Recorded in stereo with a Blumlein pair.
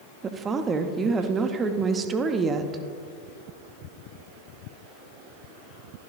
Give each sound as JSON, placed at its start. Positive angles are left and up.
{"t": 0.2, "sound": "a woman speaking", "azimuth_deg": -20, "distance_m": 0.8}